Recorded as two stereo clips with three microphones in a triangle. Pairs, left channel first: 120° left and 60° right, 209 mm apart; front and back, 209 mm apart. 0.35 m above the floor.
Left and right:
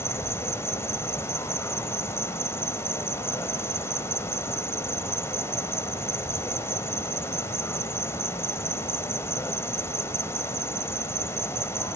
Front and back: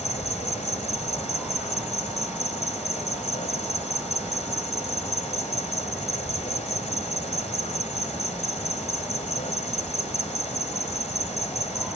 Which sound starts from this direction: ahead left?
An insect, at 0.0 s.